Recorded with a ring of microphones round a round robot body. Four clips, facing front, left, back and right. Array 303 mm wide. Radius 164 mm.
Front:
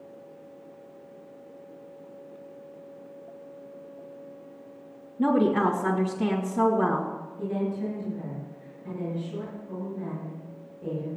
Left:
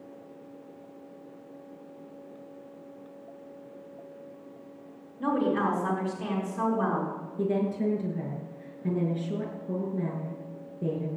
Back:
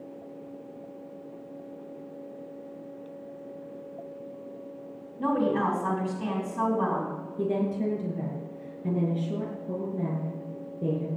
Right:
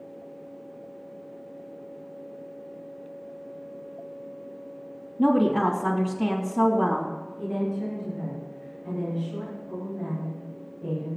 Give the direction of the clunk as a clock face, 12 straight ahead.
No clunk in this recording.